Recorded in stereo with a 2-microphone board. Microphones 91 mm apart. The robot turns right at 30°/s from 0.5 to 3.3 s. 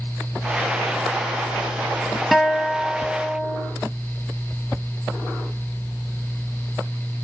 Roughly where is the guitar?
Centre.